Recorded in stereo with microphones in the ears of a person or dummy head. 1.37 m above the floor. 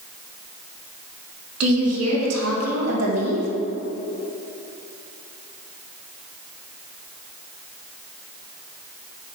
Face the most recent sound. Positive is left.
turn(degrees=-75)  # may be behind; listen again after turning